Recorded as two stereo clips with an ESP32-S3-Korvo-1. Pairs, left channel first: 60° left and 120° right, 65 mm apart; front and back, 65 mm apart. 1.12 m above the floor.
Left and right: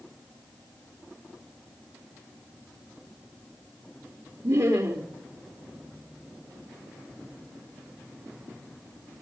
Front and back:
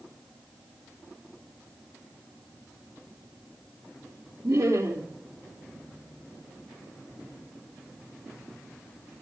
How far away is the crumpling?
I don't hear crumpling.